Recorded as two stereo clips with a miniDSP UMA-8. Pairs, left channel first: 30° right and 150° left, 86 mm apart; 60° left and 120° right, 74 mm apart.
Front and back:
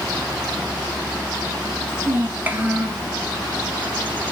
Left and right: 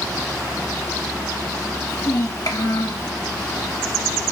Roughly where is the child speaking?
Left.